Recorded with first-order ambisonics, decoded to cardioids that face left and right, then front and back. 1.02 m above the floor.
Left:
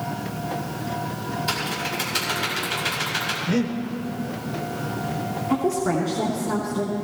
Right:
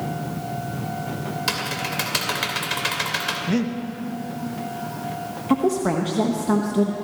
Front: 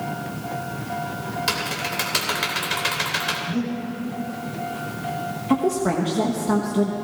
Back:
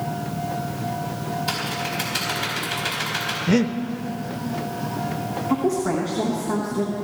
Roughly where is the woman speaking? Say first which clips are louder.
Right 2 dB, front 1 dB; ahead right.